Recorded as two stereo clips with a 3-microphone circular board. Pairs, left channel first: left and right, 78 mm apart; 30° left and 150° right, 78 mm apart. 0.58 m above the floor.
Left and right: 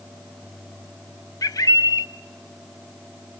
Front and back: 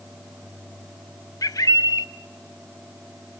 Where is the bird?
60° left, 0.5 m.